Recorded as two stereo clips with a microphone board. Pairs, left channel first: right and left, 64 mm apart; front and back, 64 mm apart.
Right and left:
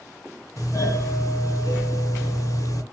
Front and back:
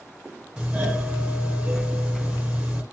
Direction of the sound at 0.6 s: 105° right.